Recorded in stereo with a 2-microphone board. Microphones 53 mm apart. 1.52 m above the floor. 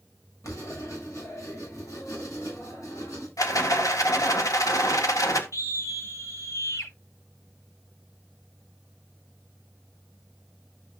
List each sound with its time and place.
0.4 s writing: 80° left, 7.5 m
3.4 s a rattle: 80° left, 1.8 m
5.5 s a scream: 70° left (ahead or behind), 3 m